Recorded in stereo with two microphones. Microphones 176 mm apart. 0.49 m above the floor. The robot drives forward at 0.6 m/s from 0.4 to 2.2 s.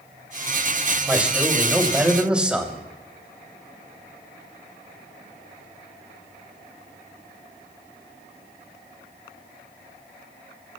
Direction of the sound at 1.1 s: 10° right (ahead or behind).